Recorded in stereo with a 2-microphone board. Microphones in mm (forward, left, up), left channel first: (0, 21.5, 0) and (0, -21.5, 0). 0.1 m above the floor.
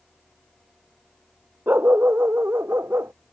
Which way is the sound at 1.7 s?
55° right (ahead or behind).